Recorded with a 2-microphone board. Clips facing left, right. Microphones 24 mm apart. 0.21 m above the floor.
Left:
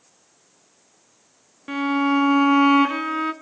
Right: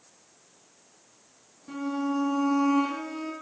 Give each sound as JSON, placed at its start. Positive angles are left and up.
{"t": 1.7, "sound": "a violin", "side_deg": 55, "distance_m": 0.7}